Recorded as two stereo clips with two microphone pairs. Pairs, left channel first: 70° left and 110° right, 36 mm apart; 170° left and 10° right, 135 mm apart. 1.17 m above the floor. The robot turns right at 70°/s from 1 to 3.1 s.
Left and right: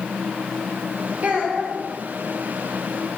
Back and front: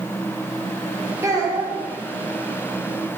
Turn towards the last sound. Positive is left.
turn(degrees=55)